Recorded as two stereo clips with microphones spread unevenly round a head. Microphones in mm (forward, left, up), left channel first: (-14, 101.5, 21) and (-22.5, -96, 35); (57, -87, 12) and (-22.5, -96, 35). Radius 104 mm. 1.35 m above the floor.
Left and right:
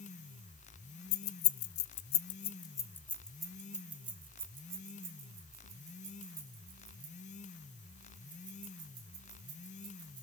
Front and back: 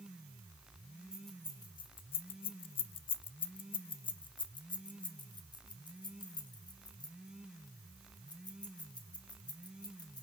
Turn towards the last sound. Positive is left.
turn(degrees=-25)